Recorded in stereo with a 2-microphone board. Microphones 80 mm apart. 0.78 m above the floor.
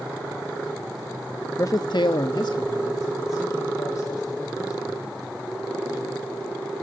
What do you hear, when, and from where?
1.6 s a man speaking: 35° left (ahead or behind), 0.8 m; by 5.2 s 40° left (ahead or behind), 5 m